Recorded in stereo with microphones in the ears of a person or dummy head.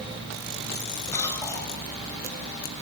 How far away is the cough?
About 6.5 m.